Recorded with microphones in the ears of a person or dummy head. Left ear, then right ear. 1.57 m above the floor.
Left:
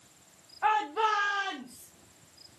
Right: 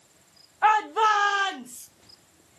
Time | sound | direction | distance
0.6 | a shout | 65° right (ahead or behind) | 1.0 m